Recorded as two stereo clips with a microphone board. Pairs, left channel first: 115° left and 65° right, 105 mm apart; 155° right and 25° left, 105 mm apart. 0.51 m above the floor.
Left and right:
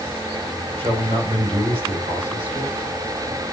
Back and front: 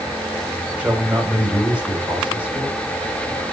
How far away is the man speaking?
About 3 m.